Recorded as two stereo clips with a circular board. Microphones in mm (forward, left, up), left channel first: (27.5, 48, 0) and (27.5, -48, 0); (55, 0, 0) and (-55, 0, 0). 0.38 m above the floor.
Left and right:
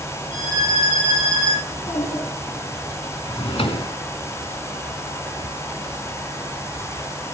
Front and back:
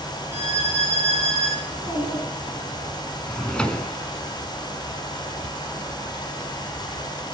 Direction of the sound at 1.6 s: 110° left.